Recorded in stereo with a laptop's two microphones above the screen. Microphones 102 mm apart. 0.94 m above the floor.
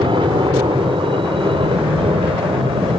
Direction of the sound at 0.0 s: 55° right (ahead or behind).